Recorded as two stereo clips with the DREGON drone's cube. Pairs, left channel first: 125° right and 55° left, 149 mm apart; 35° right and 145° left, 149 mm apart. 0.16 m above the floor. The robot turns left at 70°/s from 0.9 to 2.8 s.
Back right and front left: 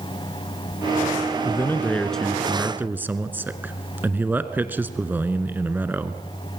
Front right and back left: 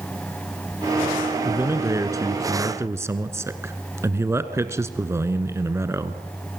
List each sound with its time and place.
1.4 s a man speaking: 155° right, 1.2 m; by 6.2 s 110° left, 1.2 m